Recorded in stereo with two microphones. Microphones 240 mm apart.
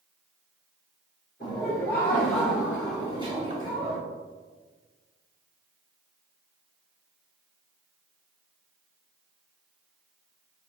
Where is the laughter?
45° left (ahead or behind), 2.0 m; by 4.0 s 50° right (ahead or behind), 1.3 m.